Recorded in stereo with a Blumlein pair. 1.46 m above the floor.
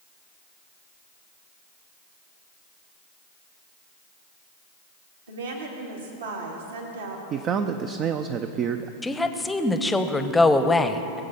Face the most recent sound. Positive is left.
turn(degrees=10)